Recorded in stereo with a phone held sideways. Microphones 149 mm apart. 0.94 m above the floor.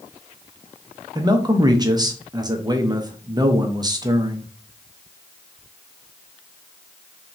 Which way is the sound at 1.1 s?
25° right (ahead or behind).